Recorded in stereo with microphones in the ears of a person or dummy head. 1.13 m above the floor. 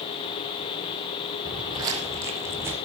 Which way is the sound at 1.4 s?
30° right (ahead or behind).